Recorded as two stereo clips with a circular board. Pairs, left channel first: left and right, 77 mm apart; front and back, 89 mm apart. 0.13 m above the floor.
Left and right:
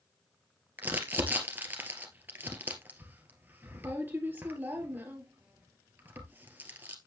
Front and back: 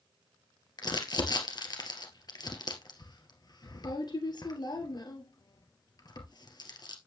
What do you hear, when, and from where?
0.8 s crumpling: 30° right, 2 m